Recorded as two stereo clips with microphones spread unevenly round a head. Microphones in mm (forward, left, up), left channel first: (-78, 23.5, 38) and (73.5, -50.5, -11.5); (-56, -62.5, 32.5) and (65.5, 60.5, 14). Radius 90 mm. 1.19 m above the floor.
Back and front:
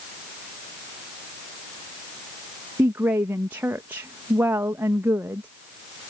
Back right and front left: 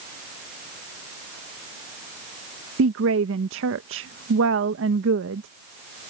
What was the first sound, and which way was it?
A woman speaking, 55° left.